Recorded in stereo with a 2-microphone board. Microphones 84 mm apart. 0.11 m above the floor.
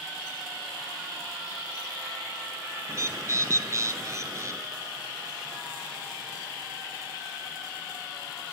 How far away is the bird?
About 0.7 m.